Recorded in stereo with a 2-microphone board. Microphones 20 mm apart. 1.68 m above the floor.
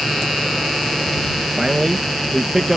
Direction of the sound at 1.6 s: 20° right (ahead or behind).